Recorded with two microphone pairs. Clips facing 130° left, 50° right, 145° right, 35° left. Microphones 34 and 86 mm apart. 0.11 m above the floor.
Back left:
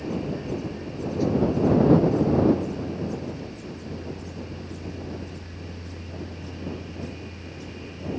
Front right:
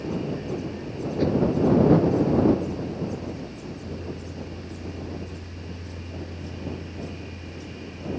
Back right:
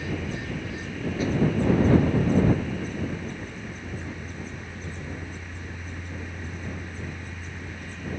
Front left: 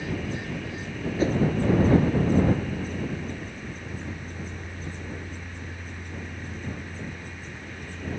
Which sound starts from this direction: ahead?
A whoosh, at 1.2 s.